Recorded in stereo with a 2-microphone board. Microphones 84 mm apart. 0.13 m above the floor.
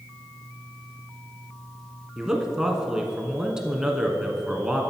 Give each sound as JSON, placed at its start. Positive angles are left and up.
{"t": 2.2, "sound": "a man speaking", "side_deg": -5, "distance_m": 1.1}